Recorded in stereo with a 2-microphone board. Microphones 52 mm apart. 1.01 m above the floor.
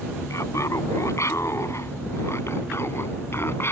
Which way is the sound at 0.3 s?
70° left (ahead or behind).